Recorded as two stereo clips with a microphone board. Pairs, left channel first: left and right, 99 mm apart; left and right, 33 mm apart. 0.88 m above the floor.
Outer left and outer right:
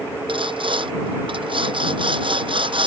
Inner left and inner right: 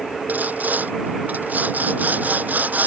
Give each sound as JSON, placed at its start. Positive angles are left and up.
{"t": 0.3, "sound": "sawing", "side_deg": -60}